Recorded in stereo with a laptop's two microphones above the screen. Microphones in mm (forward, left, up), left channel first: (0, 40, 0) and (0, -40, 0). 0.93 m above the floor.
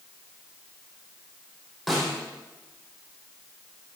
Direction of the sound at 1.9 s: Centre (ahead or behind).